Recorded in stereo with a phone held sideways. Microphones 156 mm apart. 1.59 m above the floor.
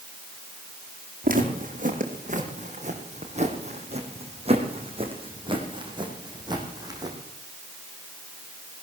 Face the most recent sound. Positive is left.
turn(degrees=-25)  # may be behind; listen again after turning